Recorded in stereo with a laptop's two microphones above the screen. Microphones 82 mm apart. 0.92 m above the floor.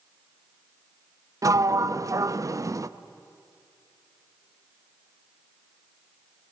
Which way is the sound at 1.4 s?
40° right (ahead or behind).